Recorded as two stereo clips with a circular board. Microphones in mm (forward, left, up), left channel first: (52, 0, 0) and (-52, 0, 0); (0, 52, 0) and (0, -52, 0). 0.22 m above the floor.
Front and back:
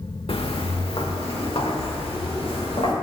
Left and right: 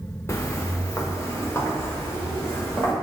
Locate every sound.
0.3 s footsteps: 30° left, 0.9 m; by 2.9 s 25° left, 2.5 m